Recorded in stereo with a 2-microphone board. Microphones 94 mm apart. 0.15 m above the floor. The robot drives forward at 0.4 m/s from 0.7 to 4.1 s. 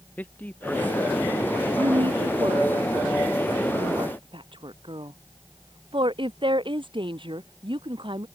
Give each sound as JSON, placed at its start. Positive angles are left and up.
{"t": 0.2, "sound": "a man speaking", "side_deg": 15}
{"t": 1.8, "sound": "a woman speaking", "side_deg": -65}